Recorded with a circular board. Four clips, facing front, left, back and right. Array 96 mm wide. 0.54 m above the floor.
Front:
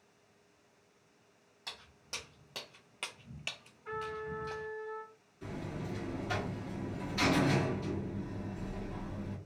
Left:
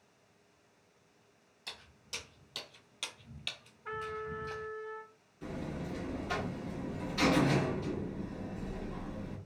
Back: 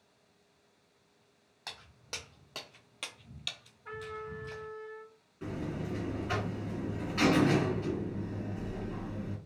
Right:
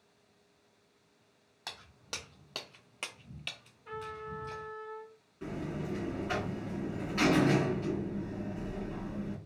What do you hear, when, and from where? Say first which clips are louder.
1.7 s footsteps: right 5 dB, back 2 dB; 115° right, 1.1 m; by 4.7 s 30° left, 1.0 m
3.9 s a trumpet: left 2 dB, front 2 dB; 90° left, 0.6 m
5.4 s a buzzer: right 2 dB, back 4 dB; 135° right, 1.3 m